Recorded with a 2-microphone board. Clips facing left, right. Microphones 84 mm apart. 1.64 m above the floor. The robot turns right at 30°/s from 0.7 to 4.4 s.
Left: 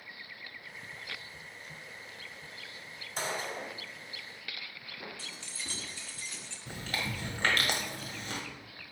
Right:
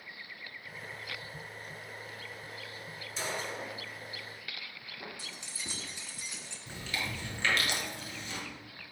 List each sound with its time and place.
3.2 s a gunshot: 45° left (ahead or behind), 1.9 m; by 3.8 s 40° left (ahead or behind), 1.9 m
5.2 s keys jangling: 15° right (ahead or behind), 0.7 m
6.7 s chewing: 45° left (ahead or behind), 1.1 m